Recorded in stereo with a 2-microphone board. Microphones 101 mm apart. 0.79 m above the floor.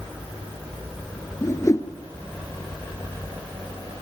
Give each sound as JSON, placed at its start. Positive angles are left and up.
{"t": 1.4, "sound": "a whoosh", "side_deg": 30, "distance_m": 2.0}